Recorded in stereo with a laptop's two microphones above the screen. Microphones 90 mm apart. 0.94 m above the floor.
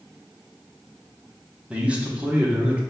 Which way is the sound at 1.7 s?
15° right (ahead or behind).